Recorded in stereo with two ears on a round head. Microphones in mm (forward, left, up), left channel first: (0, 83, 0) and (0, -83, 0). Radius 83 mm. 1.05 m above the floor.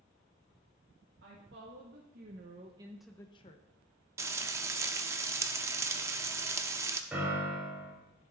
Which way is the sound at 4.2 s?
15° right (ahead or behind).